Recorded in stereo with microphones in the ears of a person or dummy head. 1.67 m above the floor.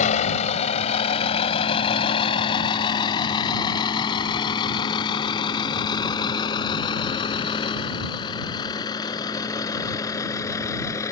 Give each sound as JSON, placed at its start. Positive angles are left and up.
{"t": 0.0, "sound": "a vehicle", "side_deg": 45}